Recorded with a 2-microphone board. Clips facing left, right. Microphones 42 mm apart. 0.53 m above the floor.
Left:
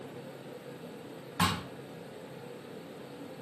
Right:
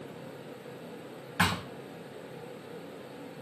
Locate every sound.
1.4 s a thud: 70° right (ahead or behind), 1.8 m